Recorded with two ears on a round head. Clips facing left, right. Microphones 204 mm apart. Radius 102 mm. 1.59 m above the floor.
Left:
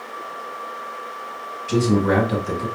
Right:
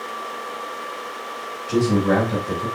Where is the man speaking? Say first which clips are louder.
Even; 45° left (ahead or behind), 2.5 m.